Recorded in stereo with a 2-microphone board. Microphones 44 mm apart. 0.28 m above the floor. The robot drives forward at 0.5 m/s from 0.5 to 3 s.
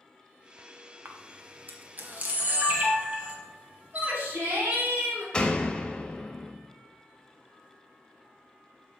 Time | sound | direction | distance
1.1 | a camera shutter | 50° right (ahead or behind) | 0.9 m
3.9 | a shout | 55° right (ahead or behind) | 1.9 m
5.3 | a door slam | 20° left (ahead or behind) | 0.7 m